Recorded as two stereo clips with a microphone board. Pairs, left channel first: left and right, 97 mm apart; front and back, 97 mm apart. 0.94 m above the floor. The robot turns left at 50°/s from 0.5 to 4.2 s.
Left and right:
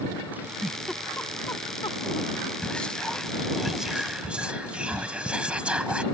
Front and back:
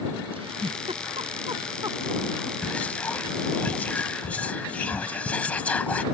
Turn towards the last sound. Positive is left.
turn(degrees=-40)